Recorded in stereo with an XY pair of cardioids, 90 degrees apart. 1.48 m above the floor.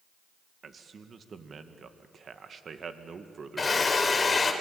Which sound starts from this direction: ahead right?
A man speaking, at 0.6 s.